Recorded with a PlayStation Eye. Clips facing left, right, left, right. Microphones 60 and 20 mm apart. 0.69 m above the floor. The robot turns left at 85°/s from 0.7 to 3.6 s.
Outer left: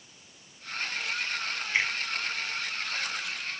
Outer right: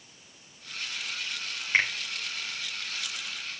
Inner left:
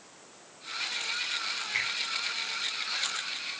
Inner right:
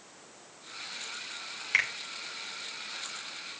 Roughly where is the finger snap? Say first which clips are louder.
Outer right 3 dB, inner right 5 dB; right.